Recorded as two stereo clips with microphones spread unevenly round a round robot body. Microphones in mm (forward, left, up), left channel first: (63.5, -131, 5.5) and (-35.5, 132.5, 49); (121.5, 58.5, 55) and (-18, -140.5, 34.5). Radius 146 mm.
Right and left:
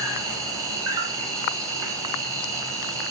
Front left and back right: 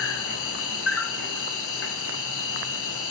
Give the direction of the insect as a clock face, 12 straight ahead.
11 o'clock.